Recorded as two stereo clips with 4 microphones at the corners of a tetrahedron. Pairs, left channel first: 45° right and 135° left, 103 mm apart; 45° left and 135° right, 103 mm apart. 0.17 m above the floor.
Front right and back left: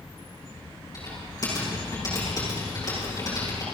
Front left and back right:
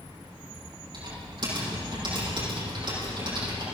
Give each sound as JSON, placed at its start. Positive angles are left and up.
{"t": 0.9, "sound": "typing on a keyboard", "azimuth_deg": -95, "distance_m": 6.5}